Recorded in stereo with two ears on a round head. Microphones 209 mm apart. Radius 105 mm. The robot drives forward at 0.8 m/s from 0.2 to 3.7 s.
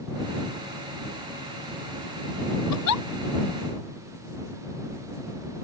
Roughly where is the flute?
No flute in this recording.